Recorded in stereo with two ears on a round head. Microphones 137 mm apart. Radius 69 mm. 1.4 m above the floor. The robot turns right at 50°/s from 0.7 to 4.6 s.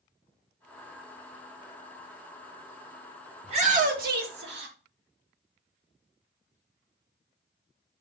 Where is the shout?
140° right, 2.5 m; by 4.8 s 85° right, 2.5 m.